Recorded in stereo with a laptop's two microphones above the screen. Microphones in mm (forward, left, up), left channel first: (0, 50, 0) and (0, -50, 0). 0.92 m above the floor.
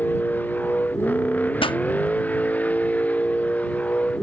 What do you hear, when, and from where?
0.0 s a vehicle: 15° left (ahead or behind)
1.6 s a pop: 55° left (ahead or behind)